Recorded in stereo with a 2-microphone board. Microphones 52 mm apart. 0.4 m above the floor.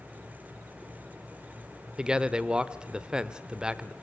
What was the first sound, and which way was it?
A man speaking, 15° right (ahead or behind).